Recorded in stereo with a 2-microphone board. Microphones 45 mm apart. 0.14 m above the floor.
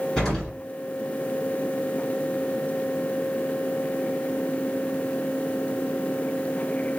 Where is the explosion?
15° left (ahead or behind), 2 m.